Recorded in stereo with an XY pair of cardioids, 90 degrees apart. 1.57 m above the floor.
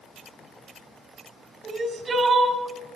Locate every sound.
1.6 s crying: 45° right, 3.5 m